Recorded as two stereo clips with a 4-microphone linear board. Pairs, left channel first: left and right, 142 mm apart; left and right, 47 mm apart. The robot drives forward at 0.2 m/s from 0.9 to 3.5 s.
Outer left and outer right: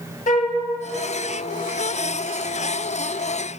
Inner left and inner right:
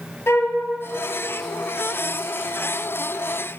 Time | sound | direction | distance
0.3 | a flute | 65° left (ahead or behind) | 0.7 m